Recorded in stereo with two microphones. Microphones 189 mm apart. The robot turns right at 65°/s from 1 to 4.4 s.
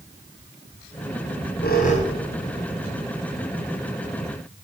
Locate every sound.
1.2 s a squeak: 85° left, 4 m; by 3.4 s 55° right (ahead or behind), 4 m